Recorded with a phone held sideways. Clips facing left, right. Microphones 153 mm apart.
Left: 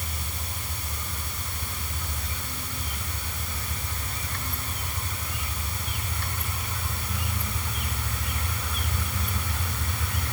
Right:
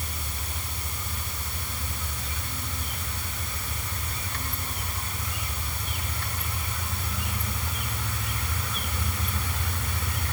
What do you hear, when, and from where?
Only background noise.